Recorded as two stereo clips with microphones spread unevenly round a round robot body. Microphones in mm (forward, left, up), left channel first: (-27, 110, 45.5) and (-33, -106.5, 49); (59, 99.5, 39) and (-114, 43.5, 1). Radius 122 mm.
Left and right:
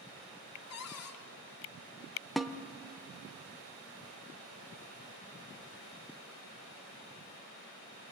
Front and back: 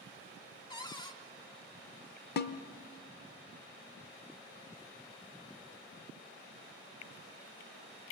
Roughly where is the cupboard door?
Left.